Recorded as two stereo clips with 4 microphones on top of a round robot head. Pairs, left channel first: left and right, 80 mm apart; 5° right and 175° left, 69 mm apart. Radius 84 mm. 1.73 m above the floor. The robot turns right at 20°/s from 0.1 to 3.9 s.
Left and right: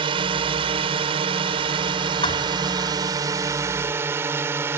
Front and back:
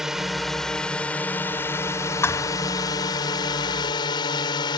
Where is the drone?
100° right; by 4.8 s 25° right.